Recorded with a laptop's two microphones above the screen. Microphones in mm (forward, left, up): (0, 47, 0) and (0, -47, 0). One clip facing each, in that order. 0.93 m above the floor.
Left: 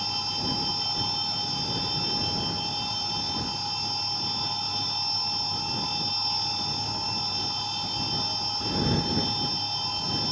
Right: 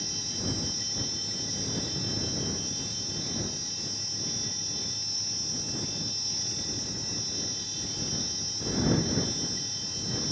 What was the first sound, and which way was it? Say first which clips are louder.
A machine running: left 4 dB; 65° left (ahead or behind).